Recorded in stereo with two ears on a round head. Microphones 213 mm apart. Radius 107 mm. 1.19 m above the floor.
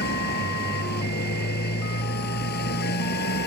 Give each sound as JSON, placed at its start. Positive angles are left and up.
{"t": 0.0, "sound": "a motorcycle", "side_deg": 45}